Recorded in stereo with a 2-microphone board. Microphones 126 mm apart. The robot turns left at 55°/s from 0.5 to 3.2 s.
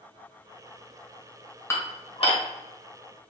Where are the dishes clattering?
20° left (ahead or behind), 1.1 m; by 2.4 s 55° left (ahead or behind), 1.1 m.